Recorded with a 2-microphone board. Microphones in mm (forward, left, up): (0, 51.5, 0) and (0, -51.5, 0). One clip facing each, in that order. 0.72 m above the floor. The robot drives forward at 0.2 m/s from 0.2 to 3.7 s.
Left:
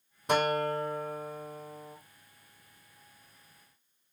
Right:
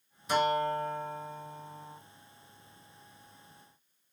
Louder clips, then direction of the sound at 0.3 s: Even; 55° left (ahead or behind).